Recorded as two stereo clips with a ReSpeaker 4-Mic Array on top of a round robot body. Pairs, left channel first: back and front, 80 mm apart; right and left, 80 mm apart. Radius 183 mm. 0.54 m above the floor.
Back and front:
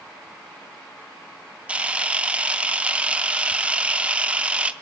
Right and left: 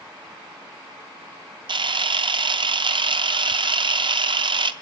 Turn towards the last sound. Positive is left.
turn(degrees=75)